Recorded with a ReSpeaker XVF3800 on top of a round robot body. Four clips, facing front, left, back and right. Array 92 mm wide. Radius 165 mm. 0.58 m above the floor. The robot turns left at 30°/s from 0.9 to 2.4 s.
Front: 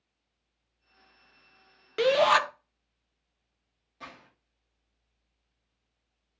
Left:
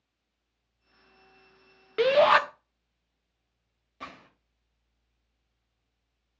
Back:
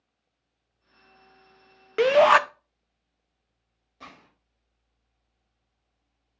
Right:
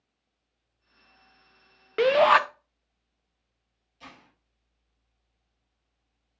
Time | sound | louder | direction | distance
2.0 | a shout | right 1 dB, back 5 dB | 155° right | 0.7 m
4.0 | a gunshot | left 5 dB, front 1 dB | 95° left | 1.6 m